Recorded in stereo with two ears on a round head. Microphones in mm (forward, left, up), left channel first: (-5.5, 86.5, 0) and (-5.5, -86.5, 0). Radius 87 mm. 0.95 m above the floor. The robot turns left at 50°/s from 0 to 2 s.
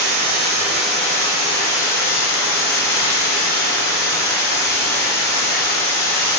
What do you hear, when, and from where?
0.0 s running water: 140° right, 1.1 m; by 6.4 s 120° left, 1.1 m